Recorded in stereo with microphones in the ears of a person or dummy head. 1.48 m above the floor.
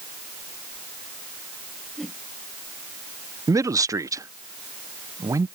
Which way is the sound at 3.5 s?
15° right (ahead or behind).